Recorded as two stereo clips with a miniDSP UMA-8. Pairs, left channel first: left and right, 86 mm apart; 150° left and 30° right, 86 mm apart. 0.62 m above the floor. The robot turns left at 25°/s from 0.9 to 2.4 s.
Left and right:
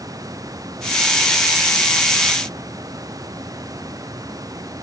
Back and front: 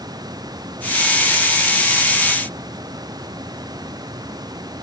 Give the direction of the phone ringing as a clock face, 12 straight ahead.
I don't hear a phone ringing.